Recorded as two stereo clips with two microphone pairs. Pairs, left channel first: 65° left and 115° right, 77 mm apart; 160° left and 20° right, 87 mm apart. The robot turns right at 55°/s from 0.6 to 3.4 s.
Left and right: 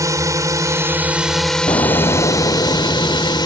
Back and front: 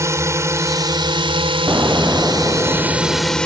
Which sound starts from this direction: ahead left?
An explosion, at 1.7 s.